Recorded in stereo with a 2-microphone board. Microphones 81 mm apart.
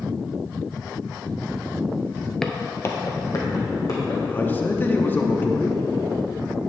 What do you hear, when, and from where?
2.4 s footsteps: 10° left (ahead or behind), 0.6 m; by 4.2 s 50° left (ahead or behind), 2.5 m
4.3 s a man speaking: 25° left (ahead or behind), 0.7 m